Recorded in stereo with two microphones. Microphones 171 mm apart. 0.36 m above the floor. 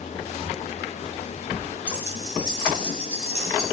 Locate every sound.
1.9 s keys jangling: 10° right (ahead or behind), 1.2 m; by 3.6 s 40° right (ahead or behind), 2.5 m